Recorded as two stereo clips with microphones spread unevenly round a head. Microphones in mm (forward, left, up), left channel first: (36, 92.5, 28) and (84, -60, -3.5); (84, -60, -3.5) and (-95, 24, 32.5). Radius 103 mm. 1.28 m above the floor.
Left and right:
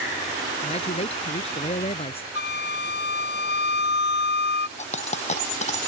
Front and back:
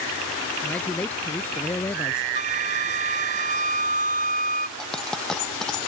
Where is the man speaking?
60° left; by 2.2 s 55° left.